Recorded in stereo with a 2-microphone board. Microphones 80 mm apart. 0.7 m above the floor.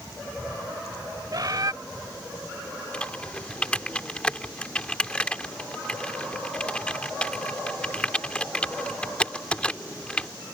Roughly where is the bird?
Right.